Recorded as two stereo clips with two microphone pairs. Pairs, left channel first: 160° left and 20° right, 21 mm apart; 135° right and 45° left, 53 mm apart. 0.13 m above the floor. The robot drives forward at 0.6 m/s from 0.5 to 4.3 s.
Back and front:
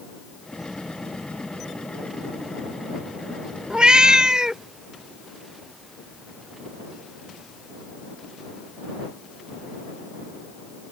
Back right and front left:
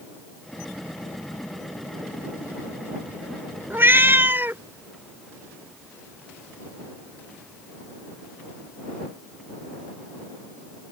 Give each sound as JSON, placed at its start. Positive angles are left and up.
{"t": 3.7, "sound": "a cat meowing", "azimuth_deg": 10}